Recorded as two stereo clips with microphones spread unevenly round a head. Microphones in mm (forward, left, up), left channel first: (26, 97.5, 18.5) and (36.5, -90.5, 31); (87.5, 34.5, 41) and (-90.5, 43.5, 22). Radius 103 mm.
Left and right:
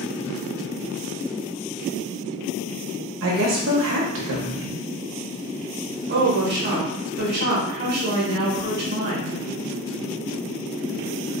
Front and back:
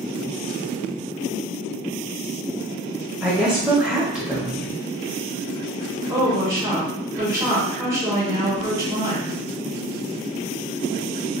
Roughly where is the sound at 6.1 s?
Behind right.